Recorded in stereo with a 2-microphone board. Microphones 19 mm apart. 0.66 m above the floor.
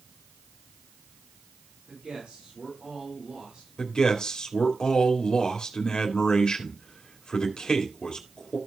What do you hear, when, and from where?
1.9 s a man speaking: 75° right (ahead or behind), 8.5 m
3.8 s a man speaking: 50° left (ahead or behind), 2.0 m